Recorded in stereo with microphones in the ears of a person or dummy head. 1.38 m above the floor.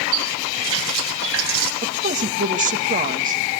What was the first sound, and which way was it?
A running tap, 70° right (ahead or behind).